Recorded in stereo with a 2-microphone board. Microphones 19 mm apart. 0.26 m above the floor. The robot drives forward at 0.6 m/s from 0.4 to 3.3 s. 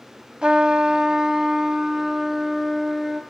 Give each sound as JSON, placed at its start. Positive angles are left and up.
{"t": 0.4, "sound": "a trumpet", "side_deg": -50, "distance_m": 0.5}